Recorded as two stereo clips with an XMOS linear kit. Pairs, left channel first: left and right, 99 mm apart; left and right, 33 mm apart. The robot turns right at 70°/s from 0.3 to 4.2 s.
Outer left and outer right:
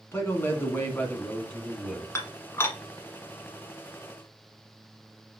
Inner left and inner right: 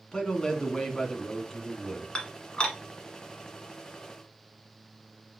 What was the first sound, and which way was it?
A man speaking, 20° left (ahead or behind).